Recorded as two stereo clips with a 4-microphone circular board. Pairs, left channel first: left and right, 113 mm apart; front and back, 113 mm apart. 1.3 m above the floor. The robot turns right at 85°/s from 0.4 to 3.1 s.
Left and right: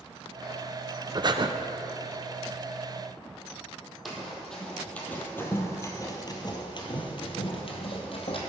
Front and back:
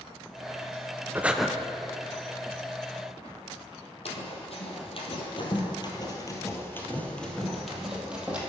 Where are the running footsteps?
Straight ahead, 2.5 m; by 8.4 s 105° left, 2.5 m.